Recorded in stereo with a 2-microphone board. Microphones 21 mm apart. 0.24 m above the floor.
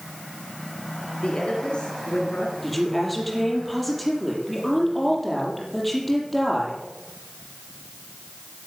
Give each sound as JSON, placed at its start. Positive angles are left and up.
{"t": 1.2, "sound": "a woman speaking", "side_deg": 55, "distance_m": 5.5}
{"t": 2.6, "sound": "a woman speaking", "side_deg": 5, "distance_m": 6.5}